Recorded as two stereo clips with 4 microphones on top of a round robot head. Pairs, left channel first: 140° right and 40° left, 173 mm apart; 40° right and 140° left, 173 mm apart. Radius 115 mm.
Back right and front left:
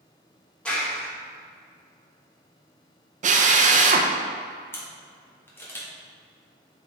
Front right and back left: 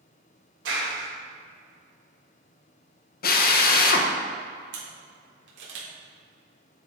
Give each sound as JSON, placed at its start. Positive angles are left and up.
{"t": 0.7, "sound": "a clap", "azimuth_deg": 135, "distance_m": 2.5}
{"t": 3.2, "sound": "a drill", "azimuth_deg": -10, "distance_m": 0.8}
{"t": 4.7, "sound": "a camera shutter", "azimuth_deg": 140, "distance_m": 1.9}